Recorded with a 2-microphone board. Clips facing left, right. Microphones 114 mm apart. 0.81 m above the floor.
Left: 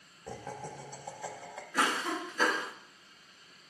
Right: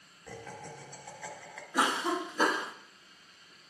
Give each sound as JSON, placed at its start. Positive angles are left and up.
{"t": 0.3, "sound": "laughter", "side_deg": 30, "distance_m": 0.9}
{"t": 1.7, "sound": "a cough", "side_deg": -20, "distance_m": 0.6}